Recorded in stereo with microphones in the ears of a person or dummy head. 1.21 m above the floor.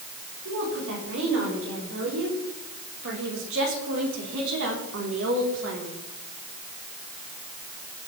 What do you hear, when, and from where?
0.5 s a woman speaking: 65° right (ahead or behind), 6 m; by 6.0 s 70° right (ahead or behind), 3 m